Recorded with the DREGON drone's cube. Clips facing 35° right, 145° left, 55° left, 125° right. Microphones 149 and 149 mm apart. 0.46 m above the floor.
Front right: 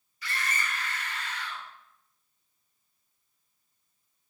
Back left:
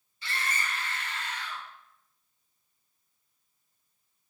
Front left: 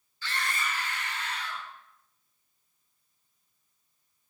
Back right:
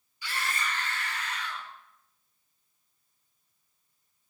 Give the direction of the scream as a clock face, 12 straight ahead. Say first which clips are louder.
Even, even; 6 o'clock.